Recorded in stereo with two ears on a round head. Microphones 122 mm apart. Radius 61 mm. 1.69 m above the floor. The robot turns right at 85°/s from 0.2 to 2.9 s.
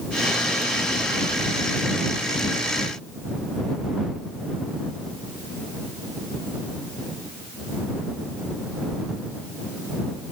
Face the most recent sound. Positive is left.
No sound to turn to.